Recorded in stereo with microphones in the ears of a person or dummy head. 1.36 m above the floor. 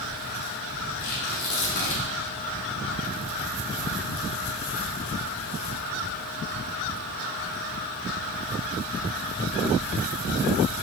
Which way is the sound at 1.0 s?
65° left (ahead or behind).